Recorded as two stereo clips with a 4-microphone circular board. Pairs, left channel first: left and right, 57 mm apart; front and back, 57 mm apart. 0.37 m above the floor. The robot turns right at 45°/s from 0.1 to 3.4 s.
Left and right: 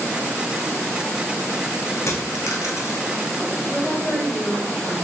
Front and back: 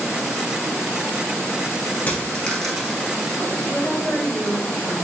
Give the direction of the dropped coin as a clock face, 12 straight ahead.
10 o'clock.